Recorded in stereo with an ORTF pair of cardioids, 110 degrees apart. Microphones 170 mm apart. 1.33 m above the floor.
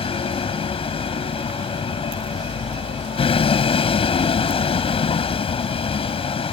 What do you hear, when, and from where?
0.0 s a vehicle: 35° left